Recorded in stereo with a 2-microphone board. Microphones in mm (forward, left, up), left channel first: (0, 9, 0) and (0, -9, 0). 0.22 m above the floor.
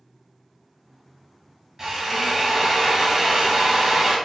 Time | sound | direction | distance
1.8 | a drill | 20° right (ahead or behind) | 1.0 m